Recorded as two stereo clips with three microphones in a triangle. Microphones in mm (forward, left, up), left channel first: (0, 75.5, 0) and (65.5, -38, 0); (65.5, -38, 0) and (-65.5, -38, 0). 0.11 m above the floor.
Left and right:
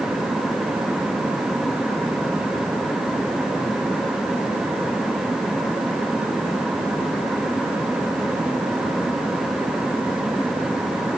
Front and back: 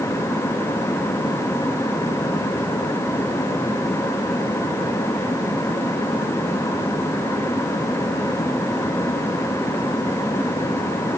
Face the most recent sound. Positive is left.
No sound to turn to.